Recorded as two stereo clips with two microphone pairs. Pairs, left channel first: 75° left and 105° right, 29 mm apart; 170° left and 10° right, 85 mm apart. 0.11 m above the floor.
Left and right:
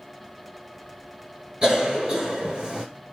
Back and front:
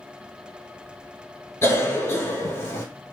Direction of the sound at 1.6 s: 150° right.